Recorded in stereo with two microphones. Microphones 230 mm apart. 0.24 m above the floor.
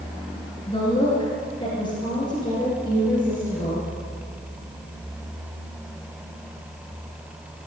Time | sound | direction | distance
0.7 | a woman speaking | 20° left (ahead or behind) | 3.5 m